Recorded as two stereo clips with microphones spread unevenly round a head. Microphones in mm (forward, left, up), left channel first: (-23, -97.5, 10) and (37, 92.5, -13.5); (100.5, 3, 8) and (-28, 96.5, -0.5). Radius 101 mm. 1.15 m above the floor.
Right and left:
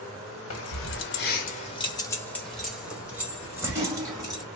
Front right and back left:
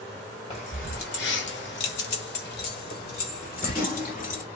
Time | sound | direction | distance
0.5 | keys jangling | 100° right | 1.1 m